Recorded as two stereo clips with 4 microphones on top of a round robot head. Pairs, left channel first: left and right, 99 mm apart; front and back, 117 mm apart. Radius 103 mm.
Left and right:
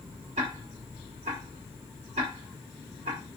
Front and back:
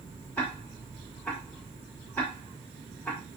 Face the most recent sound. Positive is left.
turn(degrees=-80)